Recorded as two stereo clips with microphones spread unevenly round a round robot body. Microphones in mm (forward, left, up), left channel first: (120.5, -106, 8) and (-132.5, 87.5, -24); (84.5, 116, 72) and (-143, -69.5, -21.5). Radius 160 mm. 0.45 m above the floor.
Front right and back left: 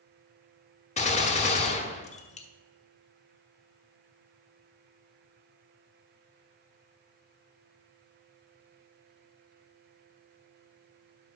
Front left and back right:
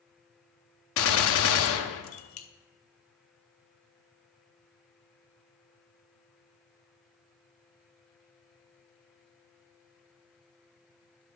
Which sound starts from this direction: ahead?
A gunshot, at 1.0 s.